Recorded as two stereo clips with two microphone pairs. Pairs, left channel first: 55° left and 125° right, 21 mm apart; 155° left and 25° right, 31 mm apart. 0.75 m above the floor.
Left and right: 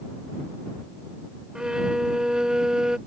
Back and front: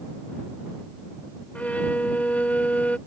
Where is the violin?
175° right.